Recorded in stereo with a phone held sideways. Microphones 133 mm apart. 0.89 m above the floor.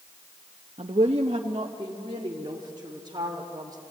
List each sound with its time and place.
0.8 s a woman speaking: 50° right (ahead or behind), 0.9 m; by 3.8 s 30° right (ahead or behind), 3 m